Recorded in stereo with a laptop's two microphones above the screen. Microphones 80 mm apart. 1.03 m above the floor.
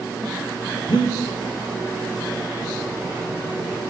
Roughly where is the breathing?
Left.